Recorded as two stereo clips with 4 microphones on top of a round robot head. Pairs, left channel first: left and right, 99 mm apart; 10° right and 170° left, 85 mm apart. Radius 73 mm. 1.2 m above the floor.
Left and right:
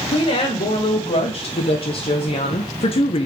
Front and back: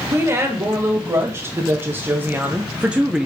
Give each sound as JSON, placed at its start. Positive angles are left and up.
{"t": 0.1, "sound": "a woman speaking", "azimuth_deg": 115, "distance_m": 2.5}